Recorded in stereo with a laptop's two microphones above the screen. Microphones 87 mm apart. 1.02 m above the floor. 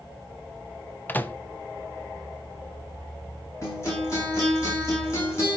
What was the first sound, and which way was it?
A microwave, 20° left (ahead or behind).